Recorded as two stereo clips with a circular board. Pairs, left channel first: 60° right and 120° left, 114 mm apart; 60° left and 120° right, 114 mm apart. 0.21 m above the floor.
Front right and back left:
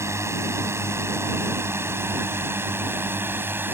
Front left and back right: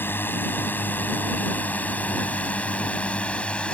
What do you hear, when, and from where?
0.0 s a drone: 105° left; by 3.7 s 120° left